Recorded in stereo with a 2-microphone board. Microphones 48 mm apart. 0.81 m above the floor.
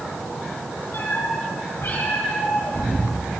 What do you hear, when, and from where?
0.9 s a cat meowing: 60° left (ahead or behind), 6 m; by 3.4 s 45° left (ahead or behind), 6.5 m